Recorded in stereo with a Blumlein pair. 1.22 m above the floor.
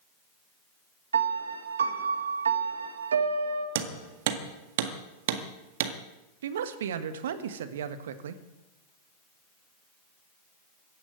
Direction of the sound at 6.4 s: 60° right.